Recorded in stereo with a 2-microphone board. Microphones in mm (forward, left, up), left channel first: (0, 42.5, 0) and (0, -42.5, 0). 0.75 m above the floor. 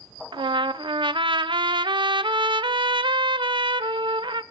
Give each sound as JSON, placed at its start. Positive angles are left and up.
{"t": 0.3, "sound": "a trumpet", "side_deg": -75, "distance_m": 0.5}